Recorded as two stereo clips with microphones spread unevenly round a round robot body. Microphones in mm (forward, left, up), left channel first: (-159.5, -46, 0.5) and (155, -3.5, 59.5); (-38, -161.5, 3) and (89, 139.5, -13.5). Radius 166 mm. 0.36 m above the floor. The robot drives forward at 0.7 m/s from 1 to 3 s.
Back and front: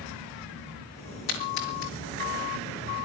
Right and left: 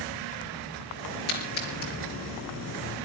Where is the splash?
175° right, 5.5 m.